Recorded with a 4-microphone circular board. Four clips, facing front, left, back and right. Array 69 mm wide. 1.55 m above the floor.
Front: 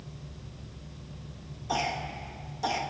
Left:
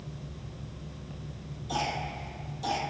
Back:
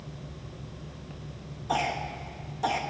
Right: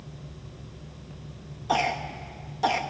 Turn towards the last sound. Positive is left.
turn(degrees=-105)